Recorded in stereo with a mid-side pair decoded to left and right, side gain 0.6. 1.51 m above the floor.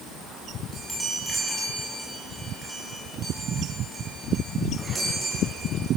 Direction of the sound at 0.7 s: 10° right.